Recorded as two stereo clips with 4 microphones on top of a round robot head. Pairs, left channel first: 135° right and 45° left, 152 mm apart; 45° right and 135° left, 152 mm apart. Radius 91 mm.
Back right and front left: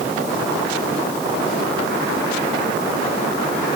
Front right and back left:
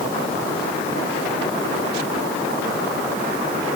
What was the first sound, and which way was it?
Only background noise.